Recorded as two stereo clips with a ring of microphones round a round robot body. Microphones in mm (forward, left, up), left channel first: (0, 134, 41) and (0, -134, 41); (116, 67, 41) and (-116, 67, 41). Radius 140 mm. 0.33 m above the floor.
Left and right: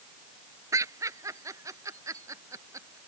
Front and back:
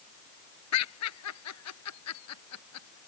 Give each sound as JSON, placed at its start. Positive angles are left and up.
{"t": 0.7, "sound": "laughter", "azimuth_deg": -10}